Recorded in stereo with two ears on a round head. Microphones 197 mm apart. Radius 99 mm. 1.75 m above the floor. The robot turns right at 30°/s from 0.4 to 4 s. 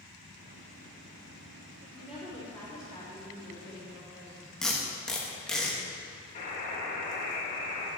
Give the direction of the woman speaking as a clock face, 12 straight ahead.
12 o'clock.